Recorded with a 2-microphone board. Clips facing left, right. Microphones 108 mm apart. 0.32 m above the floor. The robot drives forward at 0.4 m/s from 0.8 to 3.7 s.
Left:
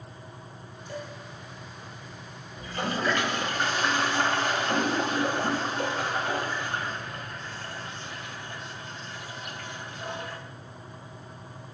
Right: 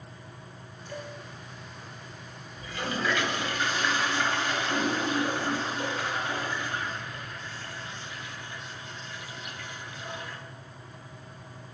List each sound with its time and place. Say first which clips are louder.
0.9 s dishes clattering: left 2 dB; 20° left (ahead or behind), 6 m
2.6 s a toilet flushing: left 2 dB; 35° left (ahead or behind), 2 m; by 10.4 s 40° left (ahead or behind), 1.9 m